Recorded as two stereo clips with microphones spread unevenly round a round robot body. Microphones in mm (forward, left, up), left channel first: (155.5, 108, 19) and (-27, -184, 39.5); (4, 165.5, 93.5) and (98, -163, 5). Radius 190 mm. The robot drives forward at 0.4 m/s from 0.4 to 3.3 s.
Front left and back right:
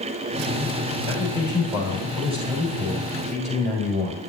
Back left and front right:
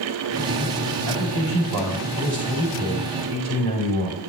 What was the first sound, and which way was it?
A man speaking, 40° right.